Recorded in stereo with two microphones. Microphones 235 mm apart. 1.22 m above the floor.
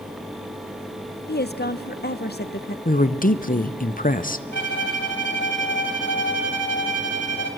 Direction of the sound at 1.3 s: 45° left (ahead or behind).